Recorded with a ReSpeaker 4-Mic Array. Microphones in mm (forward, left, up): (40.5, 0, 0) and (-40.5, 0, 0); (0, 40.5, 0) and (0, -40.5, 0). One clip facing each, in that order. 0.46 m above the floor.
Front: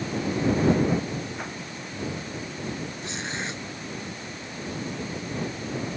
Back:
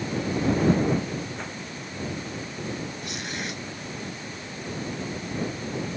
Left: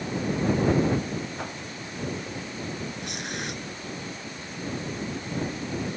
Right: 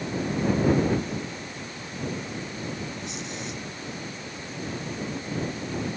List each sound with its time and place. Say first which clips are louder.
1.4 s a whoosh: front 1 dB, left 3 dB; 80° left
3.0 s tearing paper: front 1 dB, left 1 dB; 60° left